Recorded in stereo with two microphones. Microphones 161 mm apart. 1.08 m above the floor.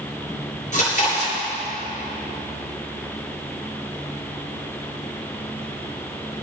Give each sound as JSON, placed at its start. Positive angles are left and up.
{"t": 0.7, "sound": "chewing", "side_deg": 50, "distance_m": 6.0}